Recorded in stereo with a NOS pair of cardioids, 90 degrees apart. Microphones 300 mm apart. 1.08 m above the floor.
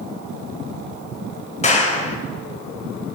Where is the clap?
20° left, 5 m.